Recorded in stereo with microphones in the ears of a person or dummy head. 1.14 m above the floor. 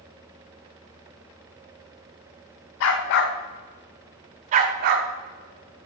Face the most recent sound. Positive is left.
turn(degrees=-55)  # may be behind; listen again after turning